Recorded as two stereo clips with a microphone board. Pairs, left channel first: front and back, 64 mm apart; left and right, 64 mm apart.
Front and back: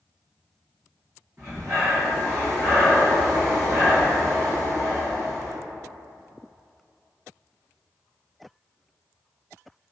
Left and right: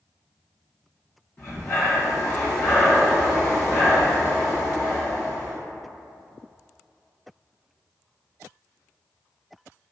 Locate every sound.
1.4 s breathing: 135° left, 1.9 m